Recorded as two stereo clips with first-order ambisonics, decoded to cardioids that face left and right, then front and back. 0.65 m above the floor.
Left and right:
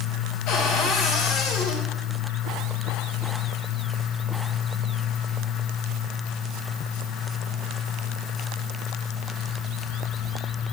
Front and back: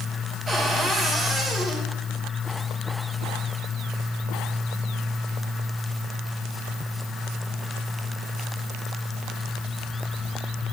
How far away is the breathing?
I don't hear breathing.